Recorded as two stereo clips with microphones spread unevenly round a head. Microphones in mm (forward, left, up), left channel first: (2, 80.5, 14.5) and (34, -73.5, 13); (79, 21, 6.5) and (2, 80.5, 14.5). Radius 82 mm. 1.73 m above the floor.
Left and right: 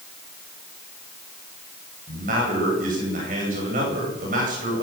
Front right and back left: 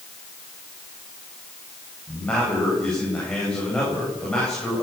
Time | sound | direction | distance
2.1 | a man speaking | 125° right | 9.5 m